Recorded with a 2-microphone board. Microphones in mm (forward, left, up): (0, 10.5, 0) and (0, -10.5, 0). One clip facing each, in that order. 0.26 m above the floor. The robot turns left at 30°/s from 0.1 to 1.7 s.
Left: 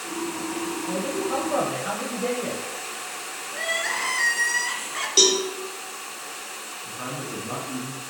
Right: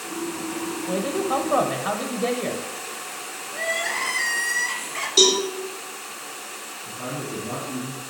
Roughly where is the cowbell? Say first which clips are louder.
Right 2 dB; left.